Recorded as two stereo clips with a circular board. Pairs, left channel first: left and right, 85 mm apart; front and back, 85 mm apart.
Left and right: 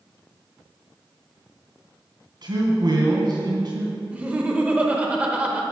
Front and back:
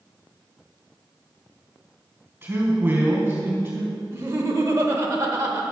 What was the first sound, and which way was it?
A man speaking, 115° right.